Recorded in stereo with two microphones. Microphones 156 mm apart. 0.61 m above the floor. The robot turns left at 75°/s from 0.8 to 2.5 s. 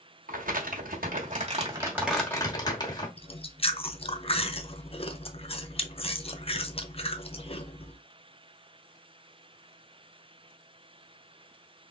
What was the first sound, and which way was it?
Crumpling, 80° right.